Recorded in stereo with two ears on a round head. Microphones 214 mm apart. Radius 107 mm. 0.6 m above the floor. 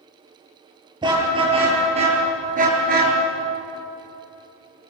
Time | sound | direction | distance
1.0 | a car horn | 20° right (ahead or behind) | 7.5 m